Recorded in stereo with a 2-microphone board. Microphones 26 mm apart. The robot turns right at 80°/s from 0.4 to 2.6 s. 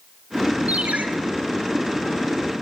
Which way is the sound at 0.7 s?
70° right (ahead or behind).